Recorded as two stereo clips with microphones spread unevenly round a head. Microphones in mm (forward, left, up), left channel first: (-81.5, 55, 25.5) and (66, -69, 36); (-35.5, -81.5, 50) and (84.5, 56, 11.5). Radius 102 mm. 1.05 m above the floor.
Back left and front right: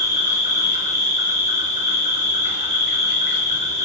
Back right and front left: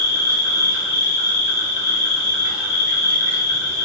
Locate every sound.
0.0 s an insect: 95° right, 1.7 m